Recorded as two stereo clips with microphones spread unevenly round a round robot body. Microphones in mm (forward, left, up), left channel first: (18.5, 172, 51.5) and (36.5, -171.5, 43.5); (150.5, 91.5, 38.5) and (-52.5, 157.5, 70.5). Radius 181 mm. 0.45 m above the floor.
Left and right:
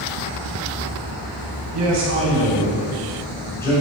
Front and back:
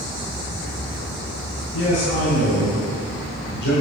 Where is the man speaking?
50° right, 3.5 m; by 3.8 s 15° left, 2.5 m.